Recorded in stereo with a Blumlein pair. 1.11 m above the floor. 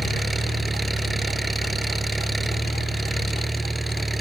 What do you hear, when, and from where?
0.0 s an engine running: 5° right